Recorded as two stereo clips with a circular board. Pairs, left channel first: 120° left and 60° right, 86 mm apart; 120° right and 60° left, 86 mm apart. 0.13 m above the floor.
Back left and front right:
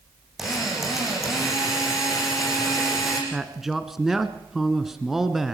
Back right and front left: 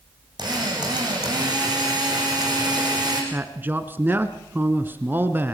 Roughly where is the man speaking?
Ahead left.